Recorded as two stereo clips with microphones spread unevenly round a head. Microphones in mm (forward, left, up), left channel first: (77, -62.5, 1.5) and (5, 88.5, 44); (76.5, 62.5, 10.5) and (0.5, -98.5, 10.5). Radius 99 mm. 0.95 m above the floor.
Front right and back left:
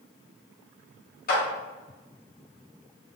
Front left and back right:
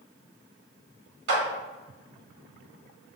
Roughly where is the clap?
Right.